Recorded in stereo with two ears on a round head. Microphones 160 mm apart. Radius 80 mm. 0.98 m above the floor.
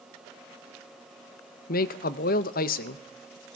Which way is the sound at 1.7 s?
55° left (ahead or behind).